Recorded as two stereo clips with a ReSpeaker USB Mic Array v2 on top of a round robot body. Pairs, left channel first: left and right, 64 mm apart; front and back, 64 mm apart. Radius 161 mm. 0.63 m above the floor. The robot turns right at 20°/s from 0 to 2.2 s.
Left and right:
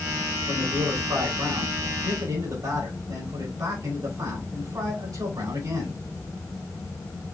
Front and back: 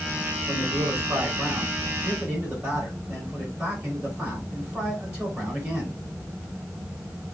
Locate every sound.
0.5 s a man speaking: 145° right, 4 m; by 6.0 s 110° right, 4 m